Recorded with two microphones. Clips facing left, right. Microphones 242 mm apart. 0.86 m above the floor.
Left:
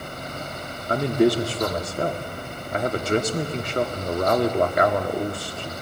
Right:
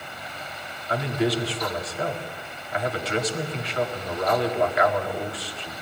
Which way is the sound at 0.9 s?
50° left (ahead or behind).